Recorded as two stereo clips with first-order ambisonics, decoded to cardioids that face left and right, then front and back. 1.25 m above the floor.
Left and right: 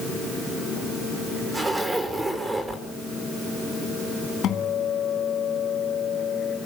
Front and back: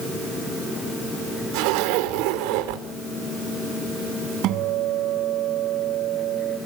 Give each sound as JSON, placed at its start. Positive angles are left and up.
{"t": 1.5, "sound": "a zipper", "azimuth_deg": -175, "distance_m": 5.0}
{"t": 4.4, "sound": "a guitar", "azimuth_deg": 140, "distance_m": 3.0}